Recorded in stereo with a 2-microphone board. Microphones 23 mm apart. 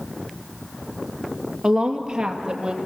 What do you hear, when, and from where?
1.6 s a woman speaking: 20° right (ahead or behind), 2.5 m; by 2.8 s 30° right (ahead or behind), 3.5 m